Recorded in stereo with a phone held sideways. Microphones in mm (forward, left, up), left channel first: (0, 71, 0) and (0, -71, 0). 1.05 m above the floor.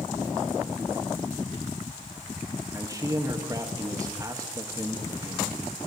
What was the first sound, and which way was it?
A man speaking, 25° right (ahead or behind).